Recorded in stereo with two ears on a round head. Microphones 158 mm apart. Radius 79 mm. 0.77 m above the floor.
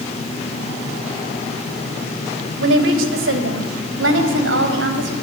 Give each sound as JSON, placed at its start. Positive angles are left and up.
{"t": 2.6, "sound": "a woman speaking", "side_deg": -80, "distance_m": 3.5}